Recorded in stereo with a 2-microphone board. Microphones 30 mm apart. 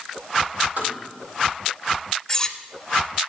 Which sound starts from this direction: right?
Tapping, at 0.8 s.